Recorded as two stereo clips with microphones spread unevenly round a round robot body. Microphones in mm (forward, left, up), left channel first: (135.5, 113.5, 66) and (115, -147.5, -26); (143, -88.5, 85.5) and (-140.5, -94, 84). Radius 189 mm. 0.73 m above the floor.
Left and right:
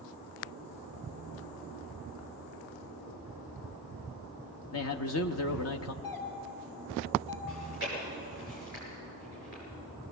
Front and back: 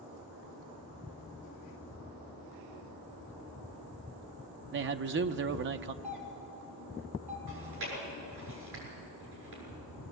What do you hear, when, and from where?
4.7 s a man speaking: 140° left, 0.7 m
6.0 s a doorbell: 100° left, 3.5 m
7.5 s chewing: 150° left, 6.5 m